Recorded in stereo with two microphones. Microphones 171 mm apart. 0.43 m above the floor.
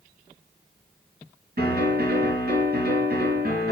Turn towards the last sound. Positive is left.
turn(degrees=-60)  # may be behind; listen again after turning